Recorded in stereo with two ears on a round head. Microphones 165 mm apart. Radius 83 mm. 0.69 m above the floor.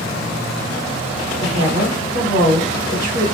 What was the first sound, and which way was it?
A woman speaking, 35° right (ahead or behind).